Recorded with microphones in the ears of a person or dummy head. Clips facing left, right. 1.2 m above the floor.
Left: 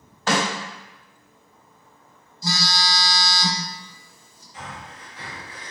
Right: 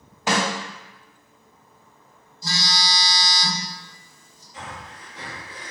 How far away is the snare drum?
About 1.2 m.